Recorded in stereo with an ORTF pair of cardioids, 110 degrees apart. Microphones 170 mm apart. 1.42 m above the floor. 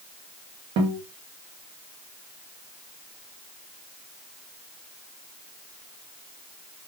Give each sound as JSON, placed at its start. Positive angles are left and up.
{"t": 0.8, "sound": "a guitar", "azimuth_deg": -70, "distance_m": 1.1}